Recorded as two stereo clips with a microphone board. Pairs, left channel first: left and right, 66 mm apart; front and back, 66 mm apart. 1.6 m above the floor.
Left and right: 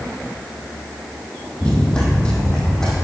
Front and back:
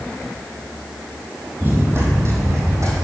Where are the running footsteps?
155° left, 1.9 m; by 3.0 s 165° left, 2.5 m.